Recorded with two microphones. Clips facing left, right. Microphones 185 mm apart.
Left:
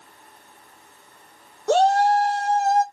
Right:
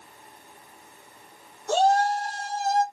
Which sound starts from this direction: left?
A shout, at 1.7 s.